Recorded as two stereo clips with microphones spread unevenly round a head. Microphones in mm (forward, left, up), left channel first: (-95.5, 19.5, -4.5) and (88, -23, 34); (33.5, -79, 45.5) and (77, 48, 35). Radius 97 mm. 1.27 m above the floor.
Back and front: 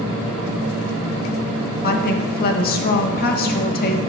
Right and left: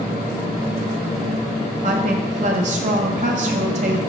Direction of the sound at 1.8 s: 120° left.